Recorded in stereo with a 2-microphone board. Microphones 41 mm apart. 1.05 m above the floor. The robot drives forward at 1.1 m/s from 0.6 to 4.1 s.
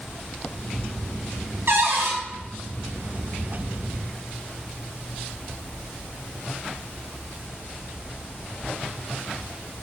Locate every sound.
1.7 s a cupboard door: 65° right (ahead or behind), 1.4 m; by 2.2 s 85° right, 1.3 m